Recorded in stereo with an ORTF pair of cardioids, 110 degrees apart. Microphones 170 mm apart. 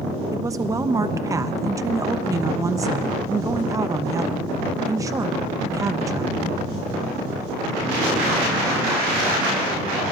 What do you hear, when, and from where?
0.3 s a woman speaking: 20° right, 0.8 m